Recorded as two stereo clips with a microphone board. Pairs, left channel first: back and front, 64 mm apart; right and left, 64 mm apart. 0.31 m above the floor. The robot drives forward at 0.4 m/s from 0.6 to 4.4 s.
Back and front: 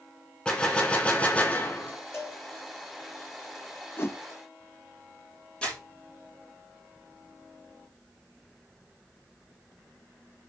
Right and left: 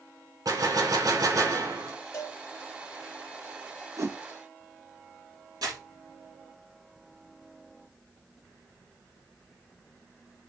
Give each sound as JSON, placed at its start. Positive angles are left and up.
{"t": 0.5, "sound": "a gunshot", "azimuth_deg": 105, "distance_m": 2.0}
{"t": 2.1, "sound": "a cowbell", "azimuth_deg": -135, "distance_m": 3.5}
{"t": 4.0, "sound": "a whoosh", "azimuth_deg": 130, "distance_m": 0.6}
{"t": 5.6, "sound": "crumpling", "azimuth_deg": 105, "distance_m": 4.5}